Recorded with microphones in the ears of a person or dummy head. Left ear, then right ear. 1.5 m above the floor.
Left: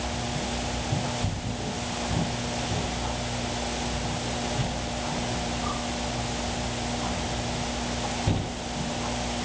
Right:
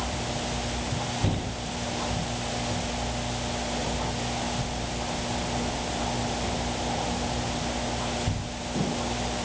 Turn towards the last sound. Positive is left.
No sound to turn to.